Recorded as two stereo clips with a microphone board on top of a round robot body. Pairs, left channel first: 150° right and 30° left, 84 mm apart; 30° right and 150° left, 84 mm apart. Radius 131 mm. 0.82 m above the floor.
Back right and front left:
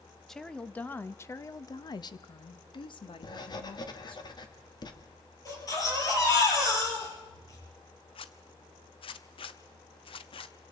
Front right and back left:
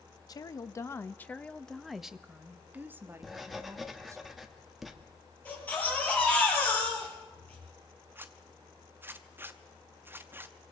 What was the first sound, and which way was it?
A woman speaking, 65° right.